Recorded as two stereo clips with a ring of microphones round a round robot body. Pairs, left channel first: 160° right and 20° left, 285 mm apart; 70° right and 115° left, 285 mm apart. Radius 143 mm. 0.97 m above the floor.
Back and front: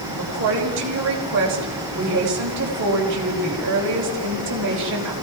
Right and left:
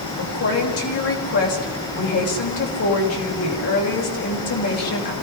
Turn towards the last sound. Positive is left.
turn(degrees=-25)